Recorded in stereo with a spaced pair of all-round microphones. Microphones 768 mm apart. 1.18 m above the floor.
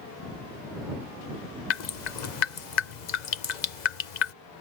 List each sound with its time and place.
1.7 s dripping: 60° left (ahead or behind)